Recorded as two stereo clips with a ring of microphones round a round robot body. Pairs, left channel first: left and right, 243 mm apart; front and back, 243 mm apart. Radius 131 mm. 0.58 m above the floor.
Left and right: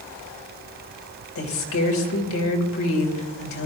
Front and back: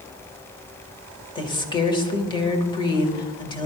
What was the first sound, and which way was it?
A woman speaking, 70° left.